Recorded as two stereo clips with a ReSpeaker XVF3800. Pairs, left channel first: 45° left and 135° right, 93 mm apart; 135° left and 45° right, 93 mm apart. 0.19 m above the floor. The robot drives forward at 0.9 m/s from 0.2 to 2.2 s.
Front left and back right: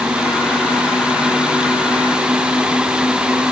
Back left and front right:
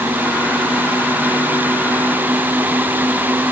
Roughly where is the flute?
I don't hear a flute.